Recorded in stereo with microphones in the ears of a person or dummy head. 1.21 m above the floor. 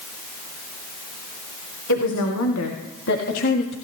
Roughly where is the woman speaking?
Left.